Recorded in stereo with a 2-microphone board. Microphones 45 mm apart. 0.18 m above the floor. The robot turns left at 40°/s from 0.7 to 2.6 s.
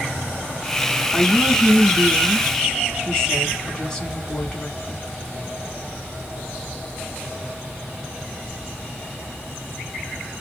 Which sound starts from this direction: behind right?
A woman speaking, at 1.1 s.